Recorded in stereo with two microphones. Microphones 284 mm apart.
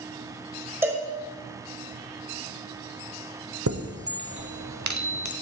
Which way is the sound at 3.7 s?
75° right (ahead or behind).